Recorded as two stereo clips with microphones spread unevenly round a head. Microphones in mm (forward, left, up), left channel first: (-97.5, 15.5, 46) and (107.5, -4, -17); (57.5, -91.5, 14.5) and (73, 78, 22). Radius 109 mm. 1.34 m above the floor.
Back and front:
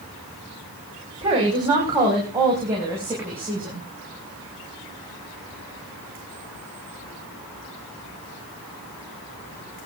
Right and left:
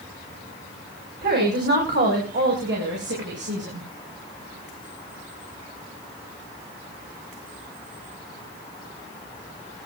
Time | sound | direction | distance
1.2 | a woman speaking | 60° left | 5.5 m